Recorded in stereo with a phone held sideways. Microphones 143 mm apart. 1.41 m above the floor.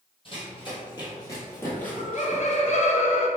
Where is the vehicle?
I don't hear a vehicle.